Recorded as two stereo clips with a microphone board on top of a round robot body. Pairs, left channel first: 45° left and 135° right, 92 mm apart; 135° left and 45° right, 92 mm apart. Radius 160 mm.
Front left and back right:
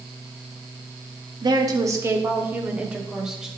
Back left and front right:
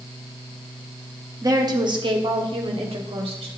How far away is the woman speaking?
About 1.9 m.